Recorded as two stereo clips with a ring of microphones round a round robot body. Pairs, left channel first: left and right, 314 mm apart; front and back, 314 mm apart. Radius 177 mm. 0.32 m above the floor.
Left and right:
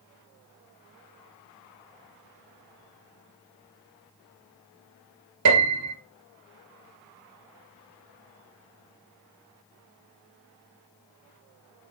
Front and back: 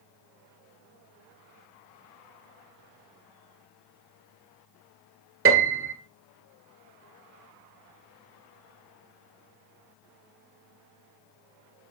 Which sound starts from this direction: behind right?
A piano, at 5.5 s.